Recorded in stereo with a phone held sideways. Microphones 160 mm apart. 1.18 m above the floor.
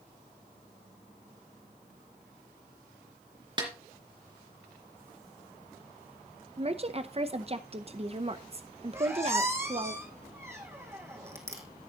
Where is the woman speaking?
40° right (ahead or behind), 0.7 m.